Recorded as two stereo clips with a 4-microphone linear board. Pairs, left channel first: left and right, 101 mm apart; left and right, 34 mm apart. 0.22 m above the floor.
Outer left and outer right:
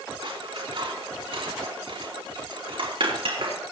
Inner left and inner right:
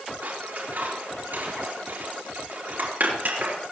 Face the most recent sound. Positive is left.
turn(degrees=-65)  # may be behind; listen again after turning